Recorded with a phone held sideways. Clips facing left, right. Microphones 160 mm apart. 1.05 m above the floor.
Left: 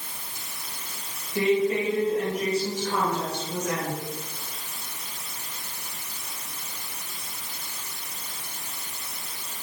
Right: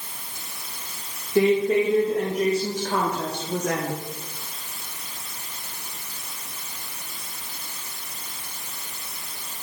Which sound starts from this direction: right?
A woman speaking, at 1.4 s.